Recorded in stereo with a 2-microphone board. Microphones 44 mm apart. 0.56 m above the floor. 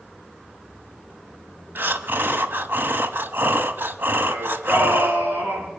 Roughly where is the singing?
Right.